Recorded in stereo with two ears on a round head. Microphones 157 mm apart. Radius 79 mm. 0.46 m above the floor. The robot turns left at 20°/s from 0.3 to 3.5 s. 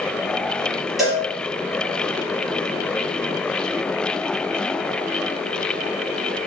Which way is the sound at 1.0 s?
Centre (ahead or behind).